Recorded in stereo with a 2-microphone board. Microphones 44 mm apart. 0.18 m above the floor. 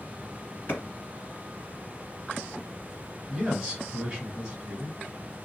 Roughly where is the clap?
Left.